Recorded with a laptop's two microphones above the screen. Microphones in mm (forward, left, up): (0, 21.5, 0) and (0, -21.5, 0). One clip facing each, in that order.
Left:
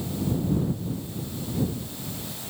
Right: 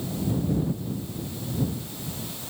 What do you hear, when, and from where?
Only background noise.